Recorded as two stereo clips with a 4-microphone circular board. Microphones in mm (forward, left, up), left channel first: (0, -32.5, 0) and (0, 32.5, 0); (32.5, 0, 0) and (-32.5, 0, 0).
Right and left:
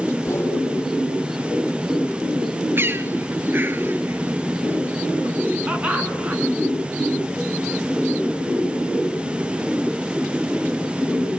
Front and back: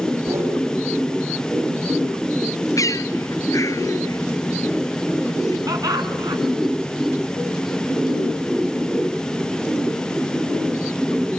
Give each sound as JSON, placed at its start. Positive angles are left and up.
{"t": 0.2, "sound": "a whoosh", "azimuth_deg": -140, "distance_m": 7.0}
{"t": 2.8, "sound": "a bird", "azimuth_deg": 35, "distance_m": 0.9}
{"t": 5.7, "sound": "laughter", "azimuth_deg": 165, "distance_m": 4.5}